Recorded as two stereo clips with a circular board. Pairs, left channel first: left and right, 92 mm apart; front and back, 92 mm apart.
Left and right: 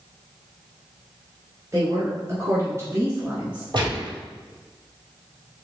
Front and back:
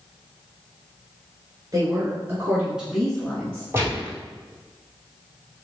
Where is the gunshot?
115° right, 1.7 m.